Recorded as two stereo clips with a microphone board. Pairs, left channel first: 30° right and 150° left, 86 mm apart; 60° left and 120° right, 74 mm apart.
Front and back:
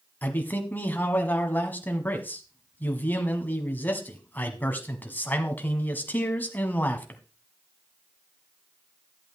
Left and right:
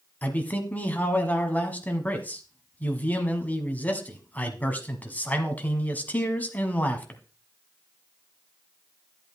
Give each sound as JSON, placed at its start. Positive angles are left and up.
{"t": 0.2, "sound": "a man speaking", "azimuth_deg": 15, "distance_m": 1.5}